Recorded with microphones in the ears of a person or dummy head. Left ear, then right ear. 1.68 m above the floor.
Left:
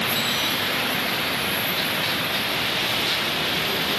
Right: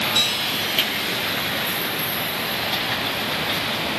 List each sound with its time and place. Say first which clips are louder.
0.1 s a guitar: right 2 dB; 35° right (ahead or behind), 4 m